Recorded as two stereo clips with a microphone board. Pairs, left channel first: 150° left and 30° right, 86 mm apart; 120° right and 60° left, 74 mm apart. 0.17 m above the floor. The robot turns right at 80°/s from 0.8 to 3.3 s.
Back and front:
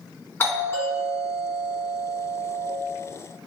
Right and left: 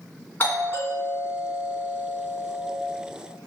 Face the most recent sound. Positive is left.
turn(degrees=35)